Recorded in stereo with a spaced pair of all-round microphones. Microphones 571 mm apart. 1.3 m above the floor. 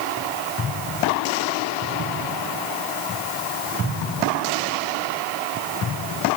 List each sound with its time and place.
Only background noise.